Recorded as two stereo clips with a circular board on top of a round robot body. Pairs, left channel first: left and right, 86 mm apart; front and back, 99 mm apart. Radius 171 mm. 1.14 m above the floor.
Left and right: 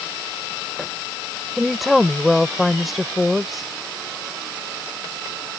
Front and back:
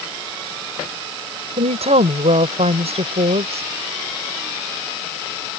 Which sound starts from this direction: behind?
A woman speaking, at 1.6 s.